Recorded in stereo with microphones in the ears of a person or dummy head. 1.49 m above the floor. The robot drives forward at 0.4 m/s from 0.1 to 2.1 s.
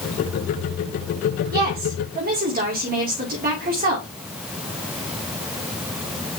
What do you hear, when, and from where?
1.5 s a woman speaking: 50° right (ahead or behind), 2.5 m; by 4.1 s 45° right (ahead or behind), 2.5 m